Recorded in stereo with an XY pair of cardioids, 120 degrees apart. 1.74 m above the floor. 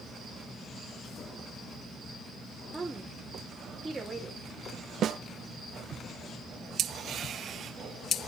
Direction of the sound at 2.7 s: 15° right.